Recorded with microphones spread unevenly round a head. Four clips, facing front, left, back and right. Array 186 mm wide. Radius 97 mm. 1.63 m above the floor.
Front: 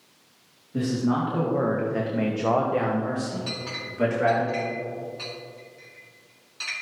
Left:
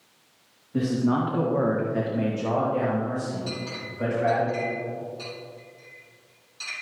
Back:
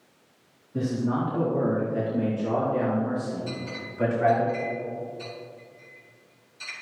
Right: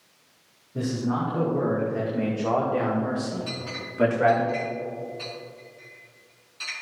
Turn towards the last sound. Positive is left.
turn(degrees=-5)